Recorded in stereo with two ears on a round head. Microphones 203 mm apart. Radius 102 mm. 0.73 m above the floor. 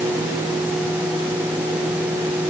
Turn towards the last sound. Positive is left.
No sound to turn to.